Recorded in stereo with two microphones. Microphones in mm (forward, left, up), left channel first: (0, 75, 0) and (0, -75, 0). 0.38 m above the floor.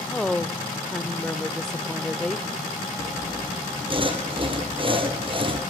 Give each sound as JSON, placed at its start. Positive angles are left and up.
{"t": 0.1, "sound": "a woman speaking", "side_deg": 5, "distance_m": 0.8}
{"t": 3.0, "sound": "sawing", "side_deg": -35, "distance_m": 3.0}